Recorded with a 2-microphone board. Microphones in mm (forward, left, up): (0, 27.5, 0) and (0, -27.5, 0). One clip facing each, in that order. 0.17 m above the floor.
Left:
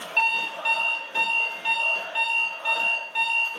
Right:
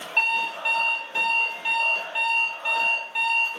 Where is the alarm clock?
5° right (ahead or behind), 1.0 m.